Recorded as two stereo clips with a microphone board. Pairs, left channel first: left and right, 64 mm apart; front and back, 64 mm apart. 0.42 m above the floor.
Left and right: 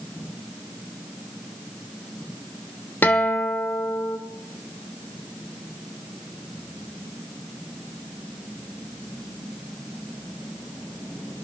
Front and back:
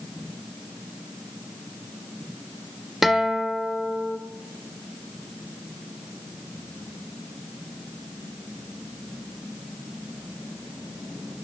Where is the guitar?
95° left, 1.3 m.